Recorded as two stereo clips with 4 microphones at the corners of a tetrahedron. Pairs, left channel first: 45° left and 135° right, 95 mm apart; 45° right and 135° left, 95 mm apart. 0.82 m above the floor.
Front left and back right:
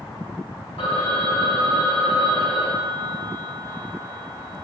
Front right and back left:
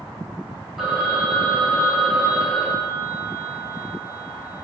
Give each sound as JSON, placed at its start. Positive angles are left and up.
{"t": 0.8, "sound": "a phone ringing", "azimuth_deg": 45, "distance_m": 2.5}